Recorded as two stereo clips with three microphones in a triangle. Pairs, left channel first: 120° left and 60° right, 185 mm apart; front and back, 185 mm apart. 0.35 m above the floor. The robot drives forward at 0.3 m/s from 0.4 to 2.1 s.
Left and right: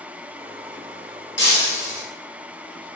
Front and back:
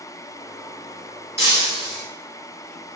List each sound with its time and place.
1.4 s breaking glass: 105° left, 1.8 m; by 2.1 s 110° left, 1.9 m